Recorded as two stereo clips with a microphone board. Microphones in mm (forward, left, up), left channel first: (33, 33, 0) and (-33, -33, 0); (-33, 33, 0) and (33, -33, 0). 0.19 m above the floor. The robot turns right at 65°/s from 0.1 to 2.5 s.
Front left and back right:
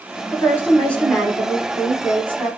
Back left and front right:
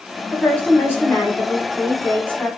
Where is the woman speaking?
65° left, 1.1 m; by 2.5 s 155° right, 1.1 m.